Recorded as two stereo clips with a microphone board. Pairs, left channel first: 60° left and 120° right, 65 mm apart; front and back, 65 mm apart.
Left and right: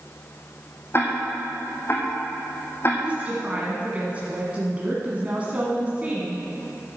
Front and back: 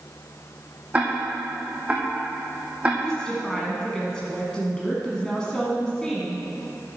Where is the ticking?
110° left, 2 m.